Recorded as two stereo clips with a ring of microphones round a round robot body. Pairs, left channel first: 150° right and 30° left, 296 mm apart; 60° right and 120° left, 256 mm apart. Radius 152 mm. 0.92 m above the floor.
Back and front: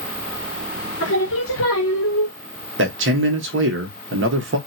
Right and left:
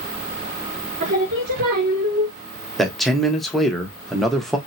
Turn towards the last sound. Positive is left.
turn(degrees=30)